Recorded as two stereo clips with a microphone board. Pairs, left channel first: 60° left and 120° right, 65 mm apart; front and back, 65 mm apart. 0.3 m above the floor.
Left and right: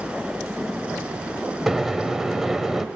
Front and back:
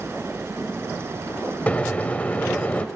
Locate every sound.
1.7 s a microwave: 50° right, 0.7 m